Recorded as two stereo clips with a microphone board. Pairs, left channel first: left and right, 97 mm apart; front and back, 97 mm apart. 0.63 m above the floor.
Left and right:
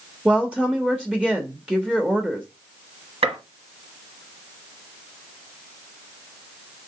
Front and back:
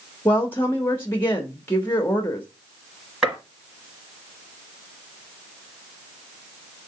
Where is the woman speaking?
25° right, 0.8 m.